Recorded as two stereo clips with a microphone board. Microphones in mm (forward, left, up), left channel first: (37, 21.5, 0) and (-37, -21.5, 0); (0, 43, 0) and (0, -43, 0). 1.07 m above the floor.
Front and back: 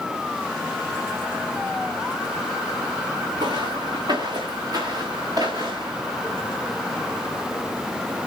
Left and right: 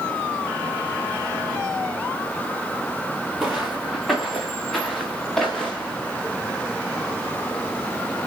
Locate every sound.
3.4 s footsteps: 175° right, 4 m; by 6.0 s 175° left, 5.5 m